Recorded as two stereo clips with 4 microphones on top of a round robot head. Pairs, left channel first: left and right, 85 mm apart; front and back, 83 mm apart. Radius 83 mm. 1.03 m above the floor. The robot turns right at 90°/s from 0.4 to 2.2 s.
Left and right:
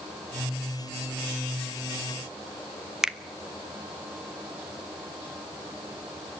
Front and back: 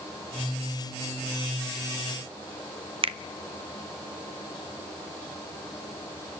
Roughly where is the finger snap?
Behind.